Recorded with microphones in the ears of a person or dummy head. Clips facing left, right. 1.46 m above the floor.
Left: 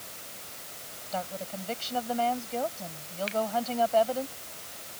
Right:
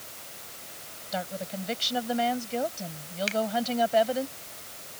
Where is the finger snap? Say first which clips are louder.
Right 1 dB; 70° right (ahead or behind).